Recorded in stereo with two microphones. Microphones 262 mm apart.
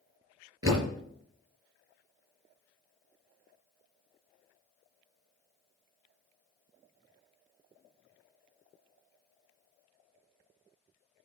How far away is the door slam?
About 4.5 m.